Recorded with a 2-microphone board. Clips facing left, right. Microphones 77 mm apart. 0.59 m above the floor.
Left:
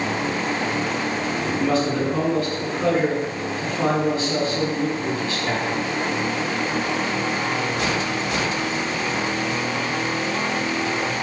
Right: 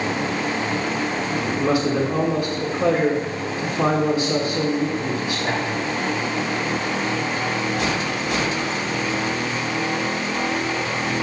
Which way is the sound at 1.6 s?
15° right (ahead or behind).